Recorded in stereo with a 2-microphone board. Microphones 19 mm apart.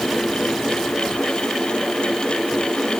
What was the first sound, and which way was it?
Only background noise.